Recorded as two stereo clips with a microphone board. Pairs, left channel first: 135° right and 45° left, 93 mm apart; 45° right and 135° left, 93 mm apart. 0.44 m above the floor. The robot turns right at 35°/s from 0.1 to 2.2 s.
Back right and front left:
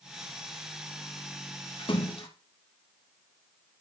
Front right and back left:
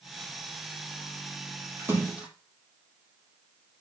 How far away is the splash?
About 4.5 m.